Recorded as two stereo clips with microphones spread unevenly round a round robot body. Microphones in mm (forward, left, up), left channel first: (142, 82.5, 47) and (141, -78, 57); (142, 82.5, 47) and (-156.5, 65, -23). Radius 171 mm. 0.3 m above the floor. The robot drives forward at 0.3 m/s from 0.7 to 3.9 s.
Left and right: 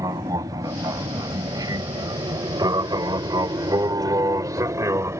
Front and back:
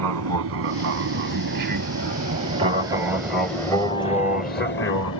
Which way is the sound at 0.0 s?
165° right.